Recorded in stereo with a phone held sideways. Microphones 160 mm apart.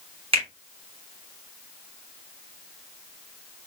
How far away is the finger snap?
About 2 m.